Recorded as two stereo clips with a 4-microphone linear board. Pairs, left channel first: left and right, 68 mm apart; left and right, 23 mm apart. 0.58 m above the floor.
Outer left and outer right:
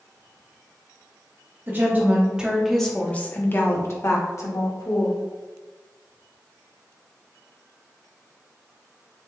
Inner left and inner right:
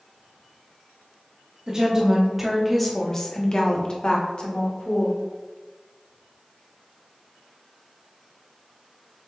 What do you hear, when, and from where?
1.7 s a woman speaking: 30° right (ahead or behind), 0.9 m; by 5.2 s 55° left (ahead or behind), 1.5 m